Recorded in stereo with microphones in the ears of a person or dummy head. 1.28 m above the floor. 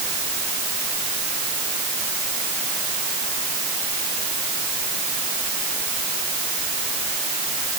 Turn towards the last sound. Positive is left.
No sound to turn to.